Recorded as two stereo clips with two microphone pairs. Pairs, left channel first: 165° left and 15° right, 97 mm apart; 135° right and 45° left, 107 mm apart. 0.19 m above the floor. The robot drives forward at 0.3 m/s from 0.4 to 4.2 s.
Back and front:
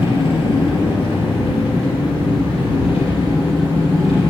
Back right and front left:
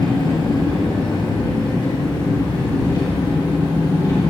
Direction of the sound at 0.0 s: 175° left.